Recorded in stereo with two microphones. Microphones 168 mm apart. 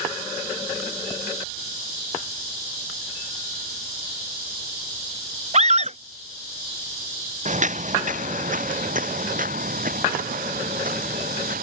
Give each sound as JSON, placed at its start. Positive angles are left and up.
{"t": 5.5, "sound": "a scream", "side_deg": -45}
{"t": 7.5, "sound": "footsteps", "side_deg": -45}